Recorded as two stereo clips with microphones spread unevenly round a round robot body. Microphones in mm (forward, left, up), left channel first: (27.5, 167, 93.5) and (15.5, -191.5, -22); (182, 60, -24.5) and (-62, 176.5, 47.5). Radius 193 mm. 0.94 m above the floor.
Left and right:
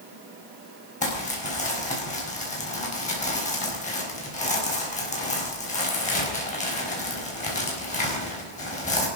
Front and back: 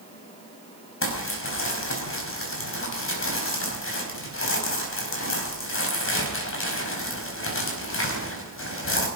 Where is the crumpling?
15° left, 5 m.